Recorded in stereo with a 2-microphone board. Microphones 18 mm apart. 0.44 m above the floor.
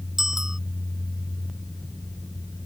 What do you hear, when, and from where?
0.2 s a bicycle bell: 20° right (ahead or behind)